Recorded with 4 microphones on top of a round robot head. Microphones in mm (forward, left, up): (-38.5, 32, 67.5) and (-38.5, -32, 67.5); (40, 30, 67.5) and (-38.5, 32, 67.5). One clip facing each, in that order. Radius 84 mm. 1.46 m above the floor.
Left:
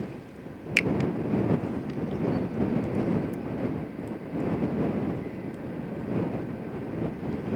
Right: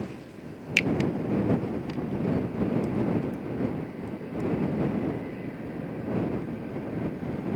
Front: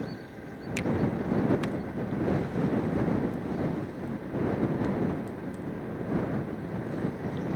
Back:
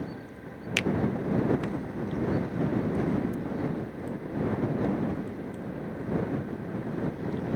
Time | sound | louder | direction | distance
0.8 | a finger snap | even, back 2 dB | 155° left | ?